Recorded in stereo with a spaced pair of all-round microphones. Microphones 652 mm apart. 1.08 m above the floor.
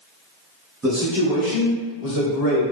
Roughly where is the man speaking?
Centre.